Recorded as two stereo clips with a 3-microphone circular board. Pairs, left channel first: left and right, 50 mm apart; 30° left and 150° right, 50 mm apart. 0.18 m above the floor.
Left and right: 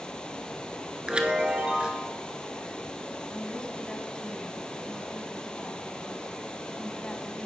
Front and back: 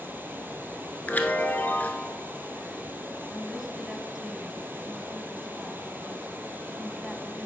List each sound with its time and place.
0.0 s running water: 165° left, 1.0 m
1.1 s a chime: 20° right, 0.9 m
3.3 s a woman speaking: 135° left, 1.3 m